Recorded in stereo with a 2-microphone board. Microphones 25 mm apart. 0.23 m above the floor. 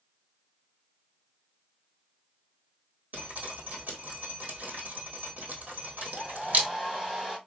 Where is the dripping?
85° right, 1.7 m.